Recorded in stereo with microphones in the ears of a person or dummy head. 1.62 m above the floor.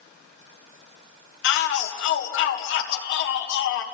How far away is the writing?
I don't hear writing.